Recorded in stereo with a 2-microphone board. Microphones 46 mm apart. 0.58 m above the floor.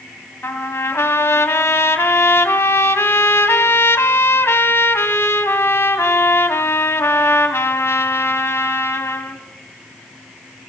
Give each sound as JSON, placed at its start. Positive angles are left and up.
{"t": 0.4, "sound": "a trumpet", "side_deg": 80, "distance_m": 2.5}